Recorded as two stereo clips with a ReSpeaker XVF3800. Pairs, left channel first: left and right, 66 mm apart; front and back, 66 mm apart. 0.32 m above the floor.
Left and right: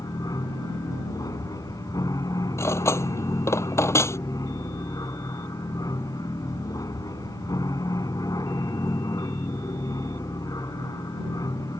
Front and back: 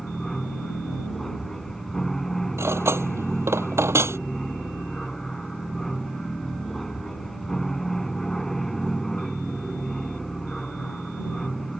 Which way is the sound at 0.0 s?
85° left.